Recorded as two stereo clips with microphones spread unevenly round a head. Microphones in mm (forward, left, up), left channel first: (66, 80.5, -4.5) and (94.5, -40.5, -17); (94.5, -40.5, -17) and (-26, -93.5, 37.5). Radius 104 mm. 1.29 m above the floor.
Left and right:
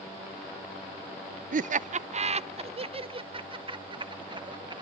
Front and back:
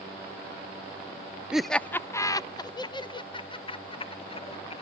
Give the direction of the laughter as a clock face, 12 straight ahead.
2 o'clock.